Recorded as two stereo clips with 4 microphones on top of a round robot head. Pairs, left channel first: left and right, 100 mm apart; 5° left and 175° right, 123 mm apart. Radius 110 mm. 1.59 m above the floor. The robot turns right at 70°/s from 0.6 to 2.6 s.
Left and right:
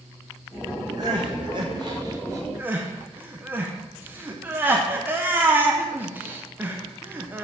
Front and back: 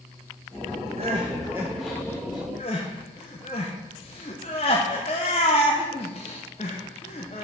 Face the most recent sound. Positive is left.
turn(degrees=-30)